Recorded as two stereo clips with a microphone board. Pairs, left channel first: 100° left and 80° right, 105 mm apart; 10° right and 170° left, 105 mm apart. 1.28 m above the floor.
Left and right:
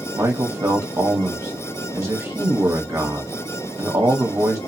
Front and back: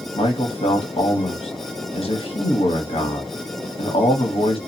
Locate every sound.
0.1 s a man speaking: 25° right, 0.8 m